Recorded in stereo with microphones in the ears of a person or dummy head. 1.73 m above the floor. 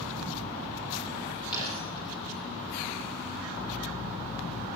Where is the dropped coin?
25° left (ahead or behind), 9.5 m.